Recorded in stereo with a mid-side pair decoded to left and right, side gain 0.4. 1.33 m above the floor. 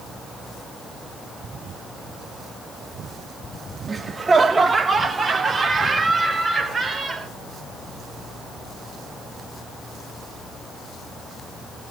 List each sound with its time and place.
3.9 s laughter: 30° right, 1.7 m